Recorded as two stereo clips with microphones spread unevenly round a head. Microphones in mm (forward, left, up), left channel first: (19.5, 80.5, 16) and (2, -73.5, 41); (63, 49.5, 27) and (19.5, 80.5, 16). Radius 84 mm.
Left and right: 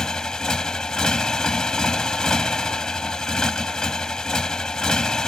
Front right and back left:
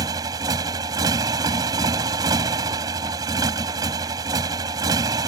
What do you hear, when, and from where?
0.0 s a motorcycle: 175° left